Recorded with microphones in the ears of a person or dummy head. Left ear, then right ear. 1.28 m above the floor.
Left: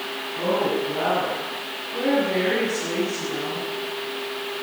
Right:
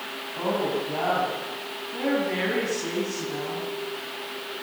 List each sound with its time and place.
0.3 s a woman speaking: 45° right (ahead or behind), 9 m